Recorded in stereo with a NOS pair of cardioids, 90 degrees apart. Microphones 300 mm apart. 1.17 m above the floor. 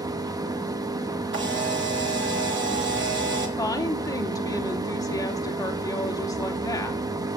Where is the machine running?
10° right, 1.0 m.